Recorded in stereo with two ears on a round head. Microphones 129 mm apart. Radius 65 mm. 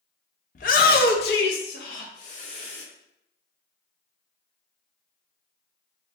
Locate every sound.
0.6 s a shout: 55° left (ahead or behind), 0.7 m; by 2.8 s 50° left (ahead or behind), 1.2 m